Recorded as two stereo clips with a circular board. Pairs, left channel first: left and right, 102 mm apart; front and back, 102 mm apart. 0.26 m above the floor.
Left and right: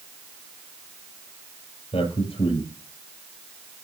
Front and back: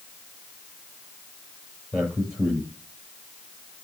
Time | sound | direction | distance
1.9 | a man speaking | 100° left | 7 m